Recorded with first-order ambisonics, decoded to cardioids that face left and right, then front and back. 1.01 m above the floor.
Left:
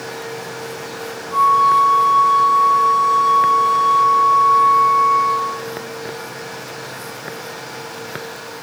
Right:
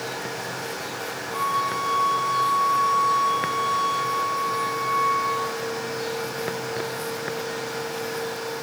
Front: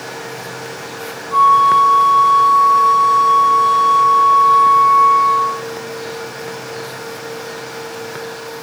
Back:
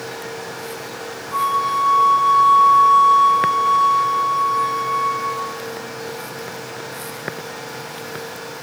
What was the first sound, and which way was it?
A flute, 5° left.